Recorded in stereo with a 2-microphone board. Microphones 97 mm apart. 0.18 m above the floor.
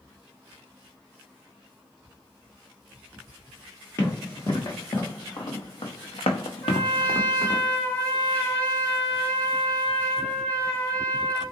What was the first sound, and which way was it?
Running footsteps, 30° left (ahead or behind).